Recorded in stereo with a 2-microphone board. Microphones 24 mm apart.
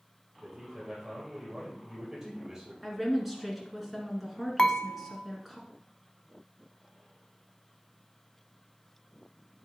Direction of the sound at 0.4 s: 30° right (ahead or behind).